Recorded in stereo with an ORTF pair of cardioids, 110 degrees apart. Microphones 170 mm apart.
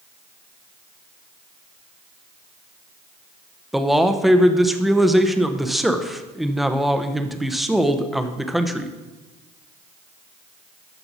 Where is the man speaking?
Straight ahead, 0.9 m.